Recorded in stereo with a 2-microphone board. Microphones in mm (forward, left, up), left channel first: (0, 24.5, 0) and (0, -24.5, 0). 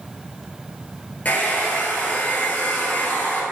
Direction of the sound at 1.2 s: 35° left (ahead or behind).